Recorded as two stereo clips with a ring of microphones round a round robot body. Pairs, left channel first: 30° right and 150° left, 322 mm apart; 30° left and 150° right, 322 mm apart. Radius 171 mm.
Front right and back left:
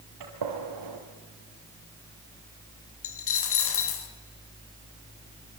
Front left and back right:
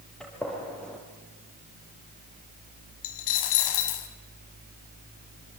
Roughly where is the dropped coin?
Ahead.